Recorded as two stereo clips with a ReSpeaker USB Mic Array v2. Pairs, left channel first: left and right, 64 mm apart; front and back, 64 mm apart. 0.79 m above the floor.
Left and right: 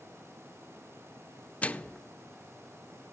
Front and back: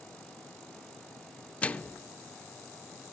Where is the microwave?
45° left, 0.6 m.